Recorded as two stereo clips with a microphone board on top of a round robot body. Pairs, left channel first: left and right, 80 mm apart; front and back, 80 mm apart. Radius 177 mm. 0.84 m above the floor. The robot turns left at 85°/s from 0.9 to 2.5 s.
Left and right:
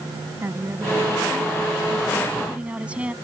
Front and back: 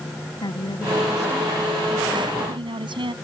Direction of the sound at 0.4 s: 30° right.